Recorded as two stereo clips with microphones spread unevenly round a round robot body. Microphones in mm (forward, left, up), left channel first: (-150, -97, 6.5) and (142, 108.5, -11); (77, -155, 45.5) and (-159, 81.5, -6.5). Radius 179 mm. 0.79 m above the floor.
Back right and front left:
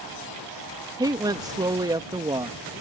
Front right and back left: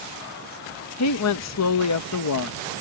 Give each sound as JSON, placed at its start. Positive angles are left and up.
{"t": 1.0, "sound": "a woman speaking", "azimuth_deg": -35}